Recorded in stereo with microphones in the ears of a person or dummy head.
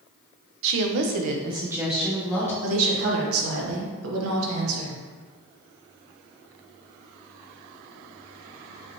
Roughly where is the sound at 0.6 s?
Right.